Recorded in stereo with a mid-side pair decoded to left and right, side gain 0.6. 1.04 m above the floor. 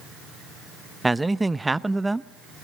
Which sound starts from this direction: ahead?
A man speaking, at 1.0 s.